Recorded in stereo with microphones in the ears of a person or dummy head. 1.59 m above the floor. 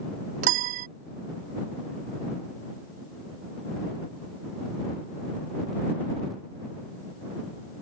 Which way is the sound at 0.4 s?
50° right (ahead or behind).